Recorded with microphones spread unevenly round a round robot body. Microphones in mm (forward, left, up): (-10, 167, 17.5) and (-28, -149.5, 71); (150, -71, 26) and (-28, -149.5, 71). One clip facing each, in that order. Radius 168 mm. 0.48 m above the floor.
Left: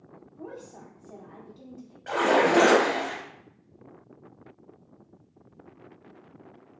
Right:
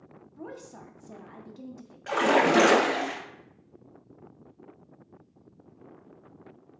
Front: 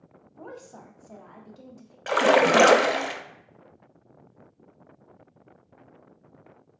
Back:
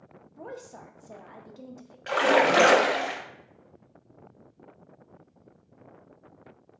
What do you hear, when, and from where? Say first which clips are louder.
0.4 s a woman speaking: even, back 1 dB; 60° right, 0.7 m
2.1 s a splash: left 1 dB, front 3 dB; 25° right, 0.5 m